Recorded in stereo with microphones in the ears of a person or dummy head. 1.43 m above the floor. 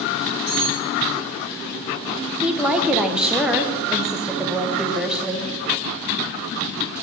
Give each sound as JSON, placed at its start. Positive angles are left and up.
{"t": 0.5, "sound": "cutlery clinking", "side_deg": 5, "distance_m": 3.0}
{"t": 2.4, "sound": "a woman speaking", "side_deg": -5, "distance_m": 0.7}